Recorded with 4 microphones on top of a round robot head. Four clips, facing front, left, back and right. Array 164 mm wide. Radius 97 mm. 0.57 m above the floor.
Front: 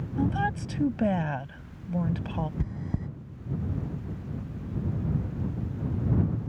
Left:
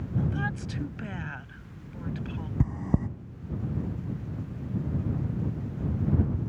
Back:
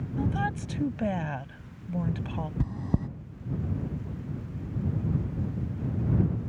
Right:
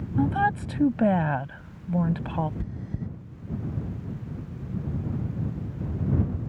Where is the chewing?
120° left.